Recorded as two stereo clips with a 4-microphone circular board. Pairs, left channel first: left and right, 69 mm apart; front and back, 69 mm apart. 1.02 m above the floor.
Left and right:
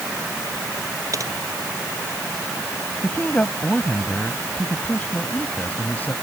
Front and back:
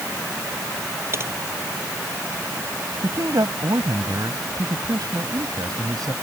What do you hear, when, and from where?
1.1 s typing on a keyboard: 130° right
3.0 s a man speaking: 155° left